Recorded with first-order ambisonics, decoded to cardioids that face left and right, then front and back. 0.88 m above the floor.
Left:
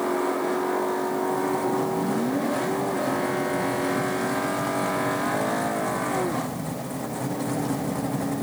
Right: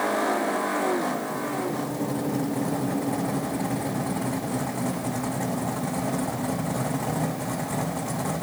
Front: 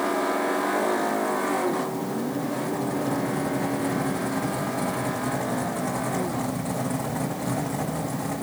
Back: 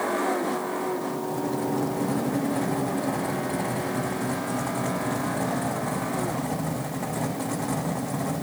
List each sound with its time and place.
Only background noise.